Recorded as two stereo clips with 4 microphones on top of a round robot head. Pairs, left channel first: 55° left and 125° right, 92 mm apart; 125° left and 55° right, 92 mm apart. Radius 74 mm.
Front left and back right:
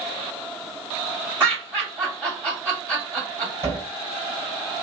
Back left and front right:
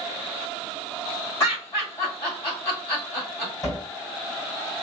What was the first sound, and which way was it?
Laughter, 170° left.